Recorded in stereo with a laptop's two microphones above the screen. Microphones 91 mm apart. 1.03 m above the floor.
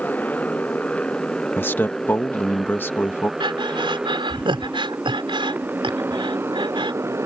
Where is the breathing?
65° right (ahead or behind).